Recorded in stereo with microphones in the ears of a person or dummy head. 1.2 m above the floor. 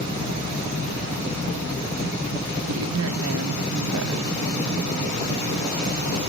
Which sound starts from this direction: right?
A woman speaking, at 2.7 s.